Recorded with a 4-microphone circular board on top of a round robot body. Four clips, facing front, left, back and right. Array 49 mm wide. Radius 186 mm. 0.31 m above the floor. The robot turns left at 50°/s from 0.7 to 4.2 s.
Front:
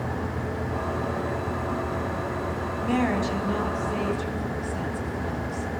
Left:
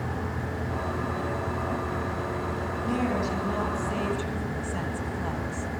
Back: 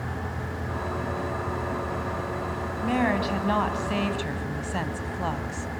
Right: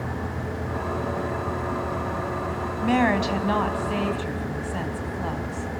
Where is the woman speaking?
100° right, 3 m; by 5.7 s 165° right, 3 m.